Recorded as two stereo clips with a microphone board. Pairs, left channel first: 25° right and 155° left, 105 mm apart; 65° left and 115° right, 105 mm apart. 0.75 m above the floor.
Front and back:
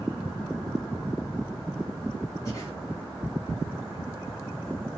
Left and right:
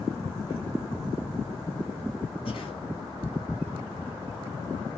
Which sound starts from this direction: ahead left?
Breathing, at 2.5 s.